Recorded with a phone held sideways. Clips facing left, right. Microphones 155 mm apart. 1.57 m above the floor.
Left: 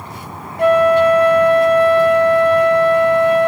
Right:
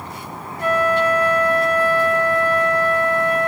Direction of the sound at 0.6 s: 65° left (ahead or behind).